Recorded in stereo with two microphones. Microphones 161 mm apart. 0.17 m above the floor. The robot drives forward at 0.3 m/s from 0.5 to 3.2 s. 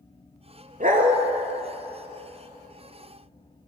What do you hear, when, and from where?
0.8 s a dog barking: 55° right (ahead or behind), 1.0 m; by 1.2 s 50° right (ahead or behind), 1.0 m